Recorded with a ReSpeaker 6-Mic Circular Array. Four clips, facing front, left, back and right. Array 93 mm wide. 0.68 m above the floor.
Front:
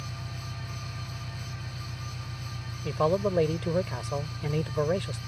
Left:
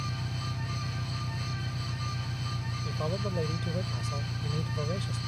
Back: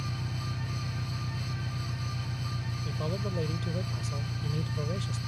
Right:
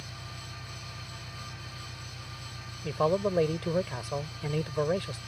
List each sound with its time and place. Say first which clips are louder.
0.0 s an engine running: left 8 dB, back 3 dB; 130° left
2.8 s a man speaking: right 8 dB, front 11 dB; 35° right